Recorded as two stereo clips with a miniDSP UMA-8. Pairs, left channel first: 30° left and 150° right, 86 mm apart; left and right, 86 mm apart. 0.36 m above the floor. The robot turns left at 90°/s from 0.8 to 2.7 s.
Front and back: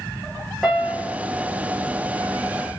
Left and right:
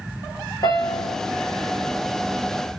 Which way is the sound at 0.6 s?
120° left.